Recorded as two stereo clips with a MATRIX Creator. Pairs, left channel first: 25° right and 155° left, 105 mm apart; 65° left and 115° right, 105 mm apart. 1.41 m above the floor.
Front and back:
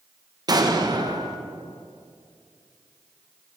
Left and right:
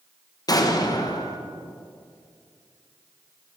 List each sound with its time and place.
0.5 s an explosion: 115° left, 0.8 m